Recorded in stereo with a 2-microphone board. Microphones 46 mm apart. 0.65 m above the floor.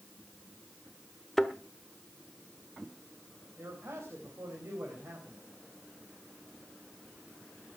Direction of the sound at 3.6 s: 65° right (ahead or behind).